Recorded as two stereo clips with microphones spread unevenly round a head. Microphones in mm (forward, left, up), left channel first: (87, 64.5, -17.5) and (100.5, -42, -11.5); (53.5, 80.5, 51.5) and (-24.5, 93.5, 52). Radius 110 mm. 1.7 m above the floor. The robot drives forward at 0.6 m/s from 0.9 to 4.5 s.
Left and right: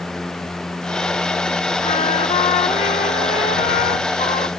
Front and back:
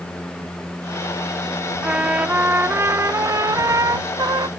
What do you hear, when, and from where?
1.8 s a trumpet: 95° left; by 4.5 s 135° left